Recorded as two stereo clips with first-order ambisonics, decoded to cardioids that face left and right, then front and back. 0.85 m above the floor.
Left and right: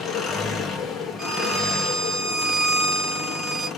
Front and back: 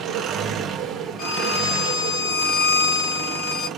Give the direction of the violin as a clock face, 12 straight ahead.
1 o'clock.